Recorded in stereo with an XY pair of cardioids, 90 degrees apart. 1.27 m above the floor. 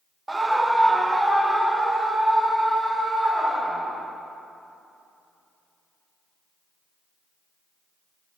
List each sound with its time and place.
0.3 s a scream: 20° right, 0.5 m; by 4.1 s 15° right, 2.5 m